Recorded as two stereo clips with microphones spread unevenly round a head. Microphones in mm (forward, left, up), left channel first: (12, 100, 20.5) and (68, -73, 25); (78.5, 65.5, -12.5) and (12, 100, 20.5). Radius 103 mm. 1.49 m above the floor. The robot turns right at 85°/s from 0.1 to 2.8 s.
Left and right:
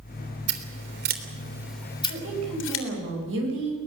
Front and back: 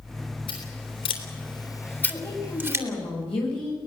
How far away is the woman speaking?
About 7.5 m.